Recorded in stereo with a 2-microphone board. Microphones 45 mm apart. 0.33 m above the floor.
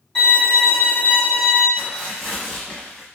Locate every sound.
0.1 s a violin: 25° left (ahead or behind), 1.8 m
1.8 s tearing paper: 10° left (ahead or behind), 1.1 m